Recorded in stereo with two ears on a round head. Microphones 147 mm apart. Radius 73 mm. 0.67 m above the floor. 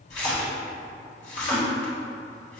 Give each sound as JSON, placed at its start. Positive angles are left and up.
{"t": 0.1, "sound": "a splash", "side_deg": 45, "distance_m": 1.1}